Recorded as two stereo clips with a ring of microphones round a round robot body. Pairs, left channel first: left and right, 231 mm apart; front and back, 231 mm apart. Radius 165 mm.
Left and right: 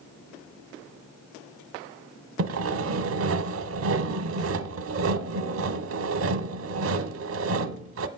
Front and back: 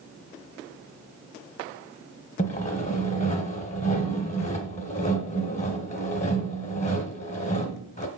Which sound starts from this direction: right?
Sawing, at 2.4 s.